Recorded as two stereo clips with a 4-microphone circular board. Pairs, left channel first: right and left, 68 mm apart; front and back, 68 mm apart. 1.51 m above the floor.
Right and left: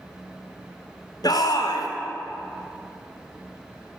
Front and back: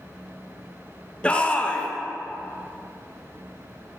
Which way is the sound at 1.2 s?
75° right.